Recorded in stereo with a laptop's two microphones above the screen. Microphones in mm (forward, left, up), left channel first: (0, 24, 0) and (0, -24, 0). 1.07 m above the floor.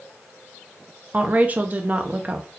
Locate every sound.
1.1 s a woman speaking: 35° right (ahead or behind), 0.5 m